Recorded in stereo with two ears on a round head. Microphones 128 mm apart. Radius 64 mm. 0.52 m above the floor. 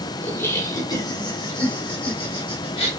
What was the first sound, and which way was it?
Laughter, 10° left (ahead or behind).